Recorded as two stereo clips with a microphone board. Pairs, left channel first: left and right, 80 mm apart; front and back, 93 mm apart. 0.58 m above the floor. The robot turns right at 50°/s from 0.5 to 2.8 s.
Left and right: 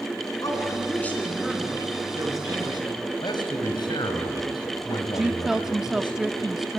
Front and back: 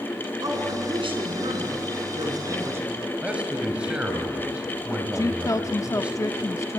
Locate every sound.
0.4 s a man speaking: 135° left, 5.5 m; by 3.1 s 110° right, 5.5 m
3.2 s a man speaking: 105° left, 4 m
5.2 s a woman speaking: 10° right, 0.7 m